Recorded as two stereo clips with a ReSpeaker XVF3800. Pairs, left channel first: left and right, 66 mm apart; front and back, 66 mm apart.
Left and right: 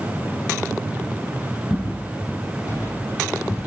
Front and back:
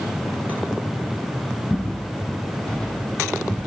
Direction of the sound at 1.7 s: 55° left.